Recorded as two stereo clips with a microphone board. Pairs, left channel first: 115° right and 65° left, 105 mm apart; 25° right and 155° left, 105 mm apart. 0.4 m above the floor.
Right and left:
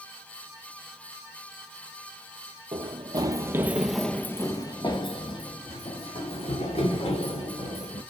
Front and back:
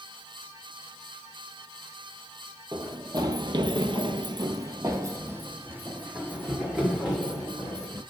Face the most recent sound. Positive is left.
turn(degrees=-120)